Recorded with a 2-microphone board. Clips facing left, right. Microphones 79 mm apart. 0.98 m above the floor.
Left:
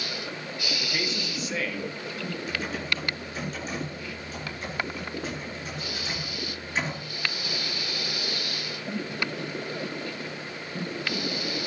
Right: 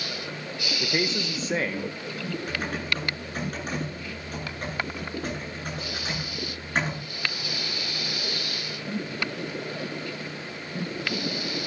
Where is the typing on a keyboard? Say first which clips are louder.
Even; 50° right (ahead or behind), 9 m.